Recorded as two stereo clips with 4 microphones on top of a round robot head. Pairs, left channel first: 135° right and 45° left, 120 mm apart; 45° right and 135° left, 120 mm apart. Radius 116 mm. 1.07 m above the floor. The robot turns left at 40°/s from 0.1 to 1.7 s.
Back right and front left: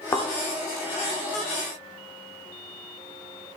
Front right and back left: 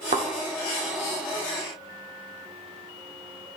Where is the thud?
165° left, 1.0 m; by 0.3 s 155° left, 1.0 m.